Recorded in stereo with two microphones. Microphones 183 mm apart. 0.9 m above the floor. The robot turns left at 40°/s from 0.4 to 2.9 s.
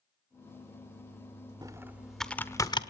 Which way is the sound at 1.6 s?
20° right (ahead or behind).